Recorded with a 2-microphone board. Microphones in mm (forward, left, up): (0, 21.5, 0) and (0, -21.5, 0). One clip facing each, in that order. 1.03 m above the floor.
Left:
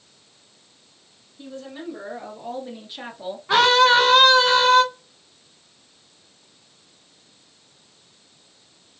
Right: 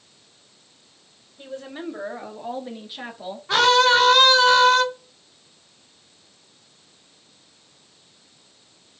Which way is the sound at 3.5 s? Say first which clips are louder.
Left 1 dB; 20° left (ahead or behind).